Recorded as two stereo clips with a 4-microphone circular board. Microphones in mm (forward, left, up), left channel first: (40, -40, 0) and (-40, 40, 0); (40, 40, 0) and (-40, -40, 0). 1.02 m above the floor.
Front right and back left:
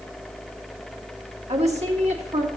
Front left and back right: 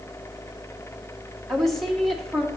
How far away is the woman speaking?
About 1.5 m.